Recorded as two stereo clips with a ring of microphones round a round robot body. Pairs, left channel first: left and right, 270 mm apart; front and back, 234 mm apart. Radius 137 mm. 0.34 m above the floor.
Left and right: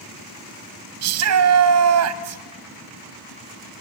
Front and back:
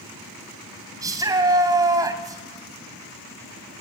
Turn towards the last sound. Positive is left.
turn(degrees=-105)